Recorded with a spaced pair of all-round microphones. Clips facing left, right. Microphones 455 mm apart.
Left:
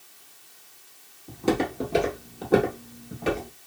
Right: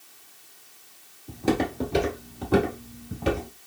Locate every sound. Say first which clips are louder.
1.3 s footsteps: even; centre (ahead or behind), 1.4 m; by 3.5 s 30° right (ahead or behind), 1.5 m